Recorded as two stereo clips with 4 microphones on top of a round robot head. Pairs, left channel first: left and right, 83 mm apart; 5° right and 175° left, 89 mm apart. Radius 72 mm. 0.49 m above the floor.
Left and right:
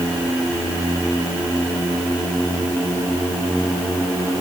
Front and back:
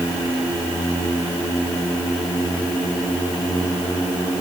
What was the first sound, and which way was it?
Only background noise.